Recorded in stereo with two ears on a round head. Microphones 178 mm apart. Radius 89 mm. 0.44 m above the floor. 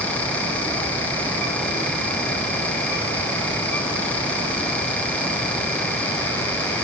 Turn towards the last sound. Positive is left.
No sound to turn to.